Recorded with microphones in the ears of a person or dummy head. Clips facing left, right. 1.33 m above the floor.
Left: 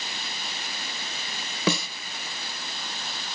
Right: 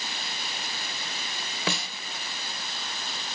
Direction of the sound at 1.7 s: 75° left (ahead or behind).